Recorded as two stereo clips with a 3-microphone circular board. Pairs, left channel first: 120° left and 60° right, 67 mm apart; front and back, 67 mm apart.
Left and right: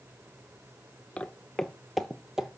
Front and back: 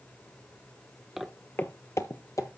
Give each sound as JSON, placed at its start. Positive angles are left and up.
{"t": 1.2, "sound": "footsteps", "azimuth_deg": 105, "distance_m": 0.6}